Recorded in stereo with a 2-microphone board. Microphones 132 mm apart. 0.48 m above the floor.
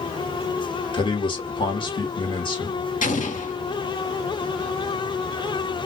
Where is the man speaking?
40° left (ahead or behind), 1.3 m.